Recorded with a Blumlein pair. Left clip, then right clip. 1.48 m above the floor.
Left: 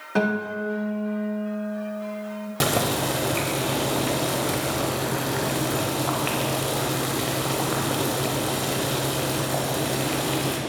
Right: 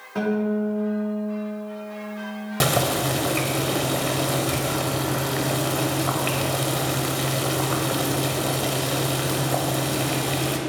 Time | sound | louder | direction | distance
0.1 | a guitar | even | 55° left | 1.6 m
2.6 | boiling | right 2 dB | 5° right | 1.0 m